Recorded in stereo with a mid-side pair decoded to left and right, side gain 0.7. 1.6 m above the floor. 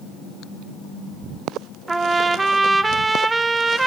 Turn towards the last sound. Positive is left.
turn(degrees=-15)